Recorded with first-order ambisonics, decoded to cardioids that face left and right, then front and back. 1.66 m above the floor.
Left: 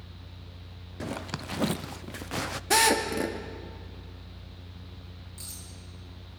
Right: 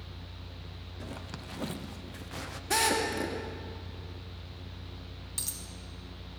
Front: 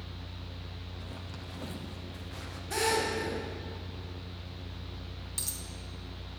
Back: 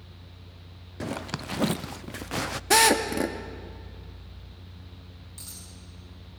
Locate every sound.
1.0 s a zipper: 150° left, 0.5 m
2.7 s a drill: 160° left, 2 m
5.4 s a dropped coin: 50° right, 5 m